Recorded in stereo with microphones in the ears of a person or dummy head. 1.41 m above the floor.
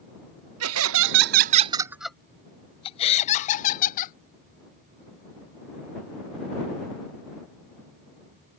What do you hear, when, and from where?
0.6 s laughter: 75° right (ahead or behind); by 4.2 s 45° left (ahead or behind)